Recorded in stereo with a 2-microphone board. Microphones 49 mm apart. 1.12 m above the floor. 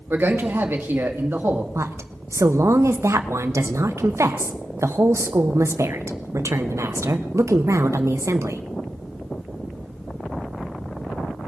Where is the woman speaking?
70° right (ahead or behind), 1.0 m.